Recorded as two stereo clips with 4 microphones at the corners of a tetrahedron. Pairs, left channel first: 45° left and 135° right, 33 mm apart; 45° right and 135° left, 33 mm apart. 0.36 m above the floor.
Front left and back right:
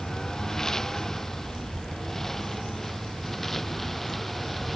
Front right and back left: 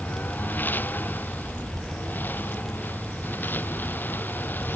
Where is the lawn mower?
30° right; by 4.8 s 40° right.